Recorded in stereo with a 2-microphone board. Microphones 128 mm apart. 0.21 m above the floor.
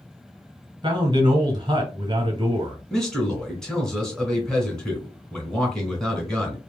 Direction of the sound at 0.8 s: 35° right (ahead or behind).